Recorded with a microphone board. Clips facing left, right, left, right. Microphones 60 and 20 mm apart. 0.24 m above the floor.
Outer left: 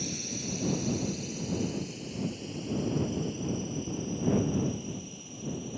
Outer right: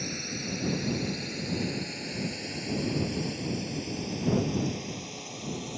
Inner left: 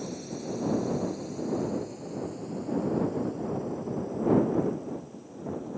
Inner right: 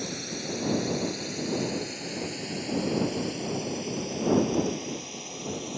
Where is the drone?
50° right (ahead or behind); by 5.8 s 80° right.